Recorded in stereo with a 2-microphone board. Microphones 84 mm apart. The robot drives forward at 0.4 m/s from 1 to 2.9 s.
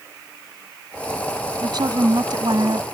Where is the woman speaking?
60° right (ahead or behind).